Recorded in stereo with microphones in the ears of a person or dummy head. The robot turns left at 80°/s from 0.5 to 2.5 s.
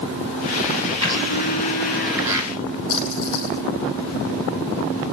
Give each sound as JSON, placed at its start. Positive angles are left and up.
{"t": 1.0, "sound": "a blender", "azimuth_deg": 90, "distance_m": 3.5}
{"t": 2.9, "sound": "a splash", "side_deg": 75, "distance_m": 7.0}